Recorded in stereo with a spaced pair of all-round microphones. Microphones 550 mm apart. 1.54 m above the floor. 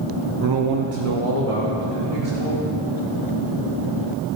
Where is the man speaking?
30° right (ahead or behind), 0.6 m; by 2.8 s 55° right (ahead or behind), 3.5 m.